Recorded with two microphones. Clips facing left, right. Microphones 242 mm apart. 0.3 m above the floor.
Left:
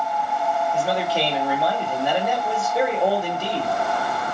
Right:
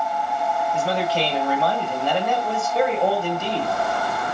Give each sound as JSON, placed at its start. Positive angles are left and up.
{"t": 0.7, "sound": "a man speaking", "side_deg": 15, "distance_m": 1.1}